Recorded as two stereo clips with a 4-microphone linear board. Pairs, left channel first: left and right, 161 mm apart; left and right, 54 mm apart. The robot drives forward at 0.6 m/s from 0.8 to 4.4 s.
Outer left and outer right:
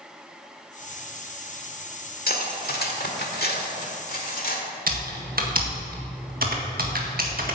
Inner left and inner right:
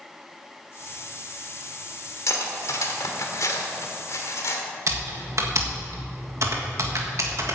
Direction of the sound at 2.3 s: 65° left (ahead or behind).